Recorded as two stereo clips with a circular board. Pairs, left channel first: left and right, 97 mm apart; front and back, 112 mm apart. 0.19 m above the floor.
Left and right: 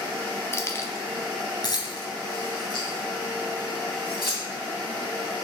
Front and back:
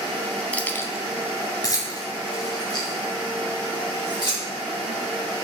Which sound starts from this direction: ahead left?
Keys jangling, at 0.5 s.